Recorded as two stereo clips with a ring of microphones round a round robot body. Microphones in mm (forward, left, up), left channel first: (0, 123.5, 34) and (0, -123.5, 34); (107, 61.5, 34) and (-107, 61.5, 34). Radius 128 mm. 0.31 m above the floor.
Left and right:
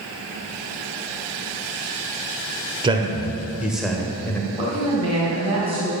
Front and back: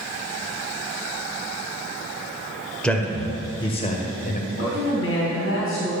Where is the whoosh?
I don't hear a whoosh.